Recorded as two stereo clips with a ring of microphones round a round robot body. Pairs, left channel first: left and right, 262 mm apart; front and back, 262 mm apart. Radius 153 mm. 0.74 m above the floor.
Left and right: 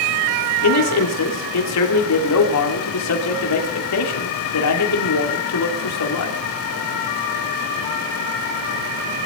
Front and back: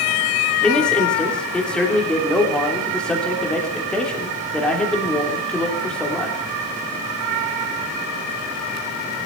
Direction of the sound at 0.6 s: 85° left.